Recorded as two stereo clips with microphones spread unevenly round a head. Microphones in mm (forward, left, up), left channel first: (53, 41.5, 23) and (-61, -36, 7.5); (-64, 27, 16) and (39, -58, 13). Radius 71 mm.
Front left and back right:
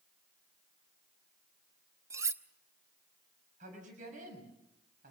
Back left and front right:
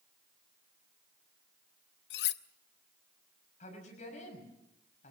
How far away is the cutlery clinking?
About 0.8 m.